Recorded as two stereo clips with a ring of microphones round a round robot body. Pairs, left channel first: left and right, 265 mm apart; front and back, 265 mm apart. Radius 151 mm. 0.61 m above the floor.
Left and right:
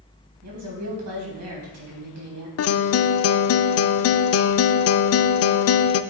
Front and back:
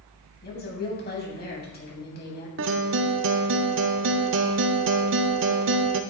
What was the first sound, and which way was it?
A woman speaking, 55° right.